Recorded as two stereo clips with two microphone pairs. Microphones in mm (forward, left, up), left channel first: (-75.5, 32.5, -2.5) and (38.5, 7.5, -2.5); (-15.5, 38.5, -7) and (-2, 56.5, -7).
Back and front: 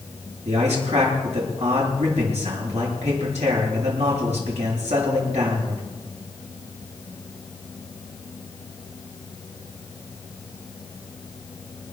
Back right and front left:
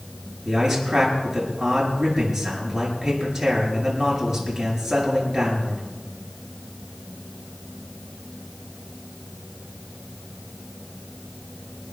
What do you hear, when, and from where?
0.5 s a man speaking: 25° right, 8 m